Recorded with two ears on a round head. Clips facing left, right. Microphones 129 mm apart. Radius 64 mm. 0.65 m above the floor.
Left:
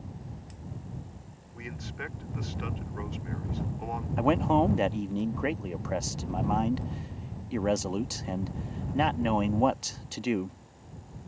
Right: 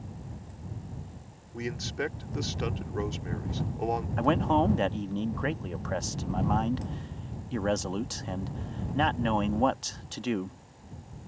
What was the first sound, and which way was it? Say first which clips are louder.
A man speaking: right 7 dB; 45° right (ahead or behind).